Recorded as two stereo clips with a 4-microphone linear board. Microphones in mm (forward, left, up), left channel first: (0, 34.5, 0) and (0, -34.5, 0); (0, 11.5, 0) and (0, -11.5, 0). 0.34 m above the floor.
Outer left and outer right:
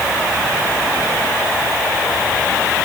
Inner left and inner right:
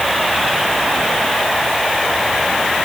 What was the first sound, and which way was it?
Only background noise.